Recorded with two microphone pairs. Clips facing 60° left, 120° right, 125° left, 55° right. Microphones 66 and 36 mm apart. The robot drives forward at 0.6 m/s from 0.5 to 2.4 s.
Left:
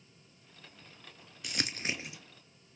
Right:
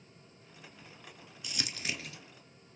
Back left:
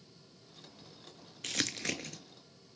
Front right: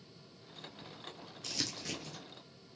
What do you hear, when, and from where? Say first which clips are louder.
1.4 s crumpling: left 3 dB, back left 5 dB; 90° left, 0.5 m; by 2.2 s 130° left, 0.7 m